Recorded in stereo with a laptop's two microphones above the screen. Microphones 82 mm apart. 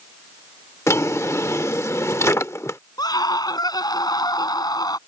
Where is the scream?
50° left (ahead or behind).